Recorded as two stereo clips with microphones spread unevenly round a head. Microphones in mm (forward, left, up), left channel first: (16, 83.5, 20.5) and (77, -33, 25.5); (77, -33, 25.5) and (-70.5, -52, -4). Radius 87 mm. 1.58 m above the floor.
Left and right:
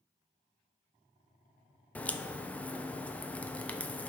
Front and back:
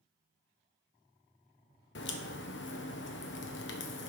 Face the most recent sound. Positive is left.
turn(degrees=35)